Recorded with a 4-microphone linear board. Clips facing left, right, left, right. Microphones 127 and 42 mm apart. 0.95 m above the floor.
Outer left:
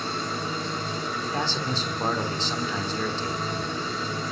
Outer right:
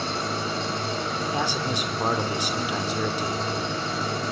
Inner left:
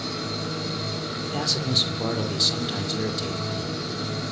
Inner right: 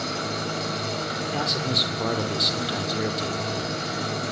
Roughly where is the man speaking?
Centre.